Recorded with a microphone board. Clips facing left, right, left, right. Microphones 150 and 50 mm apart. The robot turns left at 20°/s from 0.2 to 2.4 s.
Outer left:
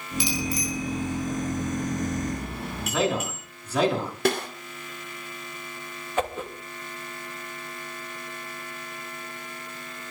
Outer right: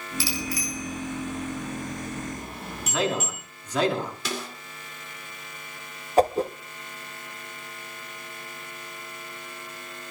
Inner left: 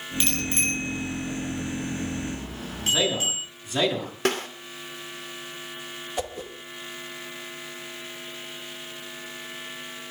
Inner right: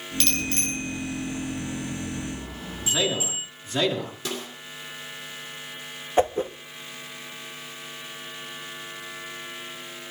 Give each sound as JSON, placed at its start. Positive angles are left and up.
{"t": 0.2, "sound": "a bicycle bell", "side_deg": 20, "distance_m": 8.0}
{"t": 2.9, "sound": "a man speaking", "side_deg": 10, "distance_m": 7.5}
{"t": 4.2, "sound": "a snare drum", "side_deg": 60, "distance_m": 2.5}
{"t": 6.2, "sound": "a whoosh", "side_deg": -35, "distance_m": 1.1}